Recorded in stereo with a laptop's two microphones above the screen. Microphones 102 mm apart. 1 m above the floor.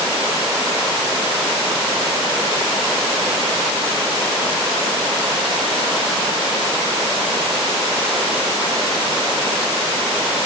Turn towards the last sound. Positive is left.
No sound to turn to.